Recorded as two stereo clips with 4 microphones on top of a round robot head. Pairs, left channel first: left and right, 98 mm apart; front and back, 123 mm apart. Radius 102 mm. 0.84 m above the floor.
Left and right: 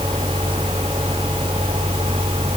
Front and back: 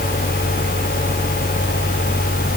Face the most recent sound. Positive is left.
No sound to turn to.